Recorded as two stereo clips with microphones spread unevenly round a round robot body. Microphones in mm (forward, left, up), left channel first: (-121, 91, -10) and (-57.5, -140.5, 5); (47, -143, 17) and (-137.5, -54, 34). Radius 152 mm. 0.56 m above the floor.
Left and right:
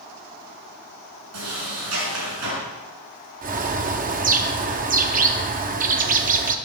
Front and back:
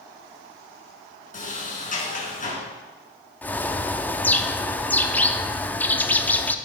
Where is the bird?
95° right, 0.8 m.